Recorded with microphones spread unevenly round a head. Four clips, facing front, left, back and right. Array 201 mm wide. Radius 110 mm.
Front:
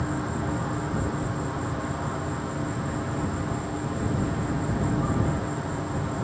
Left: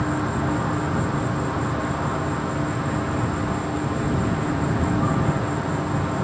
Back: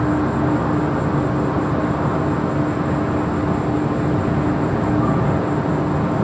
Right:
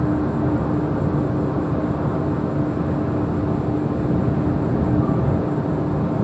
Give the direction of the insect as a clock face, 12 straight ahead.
5 o'clock.